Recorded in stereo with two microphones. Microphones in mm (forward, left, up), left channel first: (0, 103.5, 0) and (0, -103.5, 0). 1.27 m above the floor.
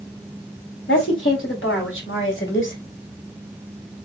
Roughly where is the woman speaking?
Left.